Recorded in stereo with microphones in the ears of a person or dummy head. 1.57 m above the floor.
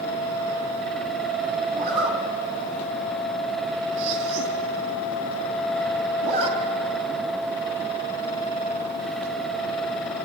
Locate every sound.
1.7 s a zipper: 40° right (ahead or behind), 2.5 m